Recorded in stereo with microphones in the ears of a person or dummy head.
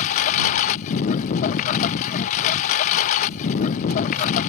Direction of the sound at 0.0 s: 50° left (ahead or behind).